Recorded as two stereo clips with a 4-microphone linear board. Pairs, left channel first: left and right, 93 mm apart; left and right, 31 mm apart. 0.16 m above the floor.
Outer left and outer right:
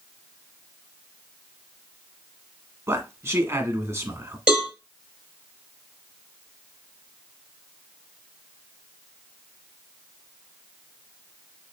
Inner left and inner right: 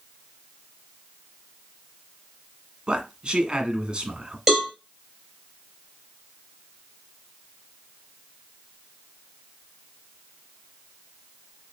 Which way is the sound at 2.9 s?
30° right (ahead or behind).